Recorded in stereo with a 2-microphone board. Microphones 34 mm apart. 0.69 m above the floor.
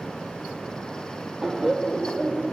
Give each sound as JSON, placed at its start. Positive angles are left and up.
{"t": 1.4, "sound": "laughter", "side_deg": -15, "distance_m": 0.6}